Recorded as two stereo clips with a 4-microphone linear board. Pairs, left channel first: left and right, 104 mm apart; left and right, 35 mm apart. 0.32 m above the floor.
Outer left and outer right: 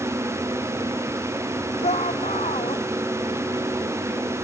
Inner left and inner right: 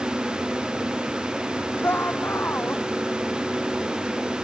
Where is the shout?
85° left.